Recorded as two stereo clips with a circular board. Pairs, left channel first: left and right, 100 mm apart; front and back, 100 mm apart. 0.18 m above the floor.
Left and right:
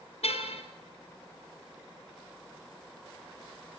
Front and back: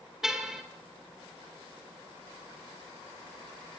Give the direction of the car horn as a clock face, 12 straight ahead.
9 o'clock.